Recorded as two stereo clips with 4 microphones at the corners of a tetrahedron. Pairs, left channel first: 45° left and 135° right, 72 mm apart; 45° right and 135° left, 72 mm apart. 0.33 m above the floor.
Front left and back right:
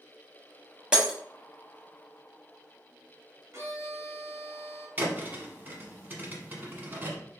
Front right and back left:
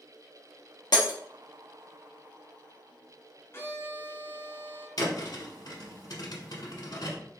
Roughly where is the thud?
Right.